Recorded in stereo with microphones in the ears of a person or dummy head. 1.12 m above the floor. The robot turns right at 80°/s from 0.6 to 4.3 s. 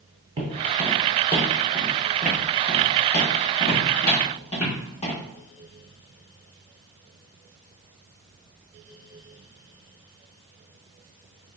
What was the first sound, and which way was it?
Footsteps, 25° right (ahead or behind).